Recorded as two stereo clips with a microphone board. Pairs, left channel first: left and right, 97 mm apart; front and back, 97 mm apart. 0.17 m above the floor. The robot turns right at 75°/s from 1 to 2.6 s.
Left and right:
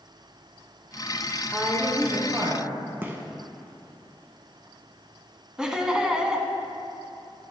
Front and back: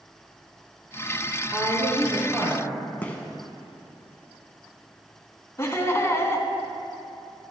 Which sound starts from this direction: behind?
A woman speaking, at 1.5 s.